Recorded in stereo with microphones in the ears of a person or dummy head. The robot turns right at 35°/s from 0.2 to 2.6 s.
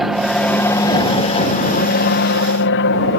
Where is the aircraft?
Straight ahead; by 3.2 s 80° left.